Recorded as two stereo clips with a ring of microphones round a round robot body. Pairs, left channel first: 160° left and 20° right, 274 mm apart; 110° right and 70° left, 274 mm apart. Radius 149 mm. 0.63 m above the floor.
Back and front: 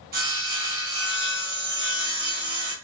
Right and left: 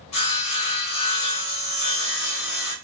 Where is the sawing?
80° right, 1.9 m.